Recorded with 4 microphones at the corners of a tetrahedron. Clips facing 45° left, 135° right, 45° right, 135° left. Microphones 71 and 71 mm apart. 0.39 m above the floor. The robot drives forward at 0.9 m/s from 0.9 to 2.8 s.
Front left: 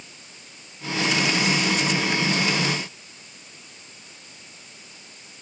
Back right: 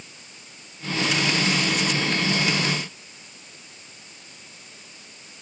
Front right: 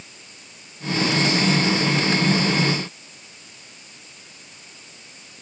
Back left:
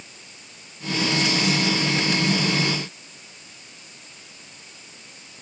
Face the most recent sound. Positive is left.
No sound to turn to.